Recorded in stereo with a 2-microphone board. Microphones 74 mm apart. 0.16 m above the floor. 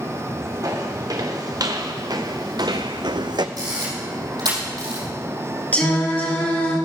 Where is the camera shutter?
65° right (ahead or behind), 4 m.